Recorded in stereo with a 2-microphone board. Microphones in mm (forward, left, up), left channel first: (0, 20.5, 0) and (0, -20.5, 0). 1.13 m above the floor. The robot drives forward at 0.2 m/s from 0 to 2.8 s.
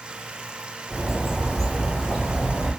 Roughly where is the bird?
Centre.